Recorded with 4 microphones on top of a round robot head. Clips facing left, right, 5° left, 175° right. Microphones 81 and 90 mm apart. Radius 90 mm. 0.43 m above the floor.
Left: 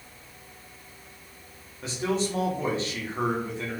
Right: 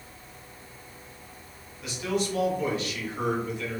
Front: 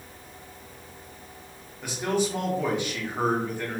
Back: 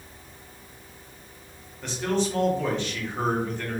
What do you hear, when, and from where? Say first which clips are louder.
1.8 s a man speaking: left 1 dB, even; 75° left, 1.6 m